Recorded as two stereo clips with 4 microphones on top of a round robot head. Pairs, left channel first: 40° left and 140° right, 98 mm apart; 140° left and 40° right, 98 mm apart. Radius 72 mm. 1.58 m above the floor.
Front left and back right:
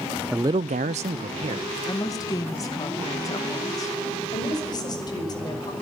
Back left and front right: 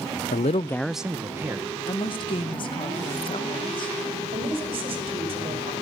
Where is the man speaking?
140° left, 0.6 m; by 1.8 s 110° right, 2.0 m.